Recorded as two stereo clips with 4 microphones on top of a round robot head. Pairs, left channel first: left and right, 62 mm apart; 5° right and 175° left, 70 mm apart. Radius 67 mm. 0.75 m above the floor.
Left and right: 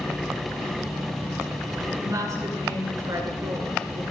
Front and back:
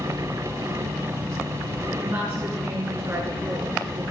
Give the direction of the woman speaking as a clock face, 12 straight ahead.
4 o'clock.